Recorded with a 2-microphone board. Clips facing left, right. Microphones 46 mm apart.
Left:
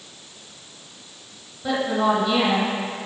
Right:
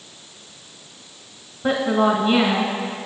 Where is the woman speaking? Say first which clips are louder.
Right 3 dB; 35° right (ahead or behind), 1.0 m.